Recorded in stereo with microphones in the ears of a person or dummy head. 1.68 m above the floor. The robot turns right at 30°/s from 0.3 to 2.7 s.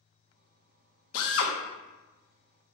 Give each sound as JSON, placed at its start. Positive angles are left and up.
{"t": 1.1, "sound": "a drill", "side_deg": 75, "distance_m": 0.6}